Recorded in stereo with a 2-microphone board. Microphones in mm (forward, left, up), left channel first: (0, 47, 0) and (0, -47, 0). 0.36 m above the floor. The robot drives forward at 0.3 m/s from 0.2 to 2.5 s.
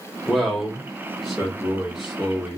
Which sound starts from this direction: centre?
A man speaking, at 0.3 s.